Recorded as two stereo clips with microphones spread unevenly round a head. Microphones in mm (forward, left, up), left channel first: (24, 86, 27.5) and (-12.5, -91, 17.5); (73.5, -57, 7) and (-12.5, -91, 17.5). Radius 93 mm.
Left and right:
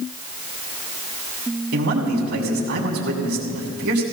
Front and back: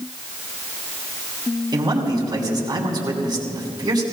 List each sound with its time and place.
1.7 s a man speaking: 115° right, 3 m